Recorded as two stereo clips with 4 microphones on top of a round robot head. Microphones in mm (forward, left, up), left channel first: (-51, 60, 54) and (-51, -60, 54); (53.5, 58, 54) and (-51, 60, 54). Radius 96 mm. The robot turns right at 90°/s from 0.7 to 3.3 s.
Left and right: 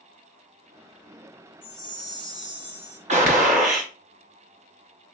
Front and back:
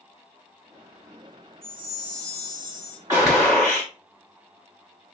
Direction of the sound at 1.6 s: 175° right.